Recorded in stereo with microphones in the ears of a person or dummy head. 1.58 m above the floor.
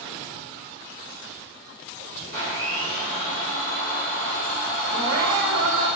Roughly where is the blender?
Left.